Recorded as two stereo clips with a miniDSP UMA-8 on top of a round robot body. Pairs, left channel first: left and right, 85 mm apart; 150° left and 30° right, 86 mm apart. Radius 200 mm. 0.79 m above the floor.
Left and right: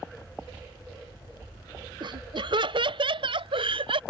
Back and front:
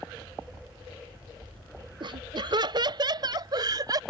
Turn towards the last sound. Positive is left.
turn(degrees=-75)